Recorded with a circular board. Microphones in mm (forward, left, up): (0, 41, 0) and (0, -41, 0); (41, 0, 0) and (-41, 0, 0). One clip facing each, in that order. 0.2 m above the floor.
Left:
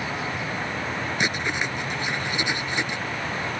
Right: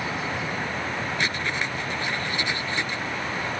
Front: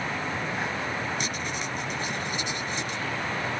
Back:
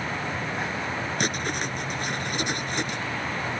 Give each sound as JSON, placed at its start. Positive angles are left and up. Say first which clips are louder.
{"t": 1.2, "sound": "writing", "louder": "left 3 dB, back 4 dB", "azimuth_deg": 160}